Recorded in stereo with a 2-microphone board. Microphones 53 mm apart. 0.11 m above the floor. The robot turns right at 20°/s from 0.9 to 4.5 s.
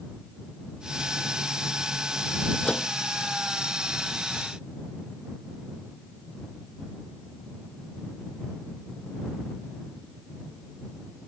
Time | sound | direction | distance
2.6 | a microwave | 20° left (ahead or behind) | ?